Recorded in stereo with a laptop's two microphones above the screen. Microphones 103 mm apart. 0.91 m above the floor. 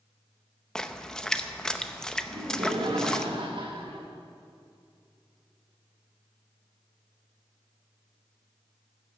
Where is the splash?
5° left (ahead or behind), 0.6 m.